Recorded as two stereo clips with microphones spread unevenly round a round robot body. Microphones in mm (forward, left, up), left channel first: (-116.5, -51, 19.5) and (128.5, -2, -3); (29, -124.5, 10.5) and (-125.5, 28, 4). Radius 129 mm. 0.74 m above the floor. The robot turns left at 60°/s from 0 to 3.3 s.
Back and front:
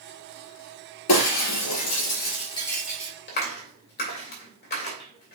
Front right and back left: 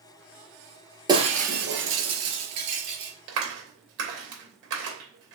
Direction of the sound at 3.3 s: 135° left.